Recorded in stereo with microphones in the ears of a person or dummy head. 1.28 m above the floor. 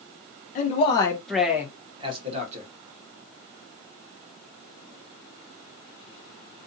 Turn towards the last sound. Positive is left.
turn(degrees=-40)  # may be behind; listen again after turning